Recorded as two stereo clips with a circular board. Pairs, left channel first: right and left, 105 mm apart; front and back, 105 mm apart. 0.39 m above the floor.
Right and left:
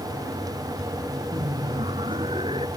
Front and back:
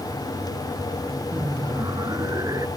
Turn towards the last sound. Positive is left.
turn(degrees=125)